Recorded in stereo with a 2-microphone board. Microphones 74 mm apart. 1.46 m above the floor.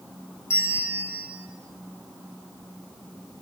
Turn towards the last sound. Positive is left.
turn(degrees=35)  # may be behind; listen again after turning